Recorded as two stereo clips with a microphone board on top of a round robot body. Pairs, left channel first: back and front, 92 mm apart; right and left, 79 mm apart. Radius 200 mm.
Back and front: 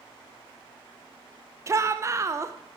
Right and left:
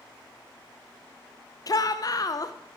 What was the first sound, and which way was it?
A shout, 55° right.